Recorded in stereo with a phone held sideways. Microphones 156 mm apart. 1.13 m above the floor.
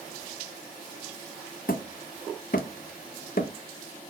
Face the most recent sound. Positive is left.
turn(degrees=65)  # may be behind; listen again after turning